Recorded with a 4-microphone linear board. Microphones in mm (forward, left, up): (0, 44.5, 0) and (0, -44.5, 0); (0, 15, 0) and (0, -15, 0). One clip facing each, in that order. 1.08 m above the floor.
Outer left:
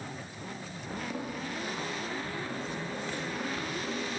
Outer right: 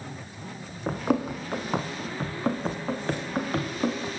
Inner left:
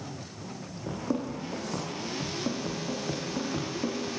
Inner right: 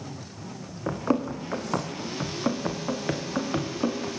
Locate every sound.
0.9 s running footsteps: 70° right (ahead or behind), 3 m; by 4.2 s 50° right (ahead or behind), 5 m